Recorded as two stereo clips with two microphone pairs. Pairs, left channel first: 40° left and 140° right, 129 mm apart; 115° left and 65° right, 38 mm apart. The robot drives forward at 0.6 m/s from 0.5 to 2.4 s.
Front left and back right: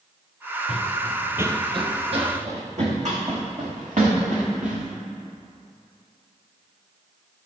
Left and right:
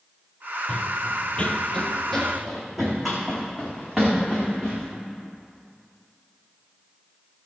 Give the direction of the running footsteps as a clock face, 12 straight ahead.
10 o'clock.